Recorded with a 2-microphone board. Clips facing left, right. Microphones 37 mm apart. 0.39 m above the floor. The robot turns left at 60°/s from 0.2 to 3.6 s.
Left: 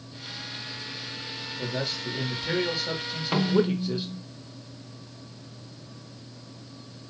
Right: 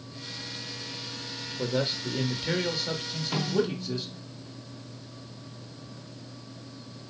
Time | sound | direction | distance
1.6 | a man speaking | 25° right (ahead or behind) | 1.0 m
3.3 | a snare drum | 35° left (ahead or behind) | 0.9 m